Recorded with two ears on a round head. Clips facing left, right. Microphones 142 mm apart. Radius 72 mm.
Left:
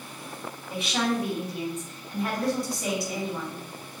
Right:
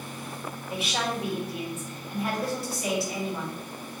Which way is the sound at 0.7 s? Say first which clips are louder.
Left 3 dB; centre (ahead or behind).